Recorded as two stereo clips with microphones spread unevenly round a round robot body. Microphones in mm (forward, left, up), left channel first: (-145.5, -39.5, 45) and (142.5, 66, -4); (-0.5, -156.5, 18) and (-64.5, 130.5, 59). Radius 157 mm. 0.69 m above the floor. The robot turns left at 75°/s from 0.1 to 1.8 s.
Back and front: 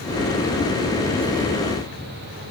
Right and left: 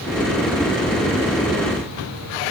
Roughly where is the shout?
I don't hear a shout.